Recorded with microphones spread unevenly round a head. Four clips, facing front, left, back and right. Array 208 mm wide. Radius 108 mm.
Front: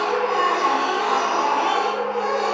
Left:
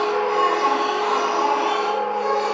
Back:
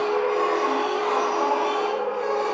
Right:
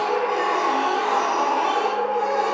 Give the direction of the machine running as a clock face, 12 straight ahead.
11 o'clock.